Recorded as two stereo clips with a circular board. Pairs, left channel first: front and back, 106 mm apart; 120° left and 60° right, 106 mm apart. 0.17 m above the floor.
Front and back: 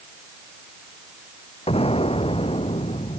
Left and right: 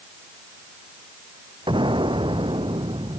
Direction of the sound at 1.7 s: 20° right.